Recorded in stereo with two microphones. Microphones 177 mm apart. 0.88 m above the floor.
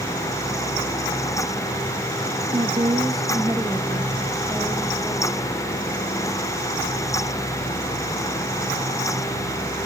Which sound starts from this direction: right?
A woman speaking, at 2.5 s.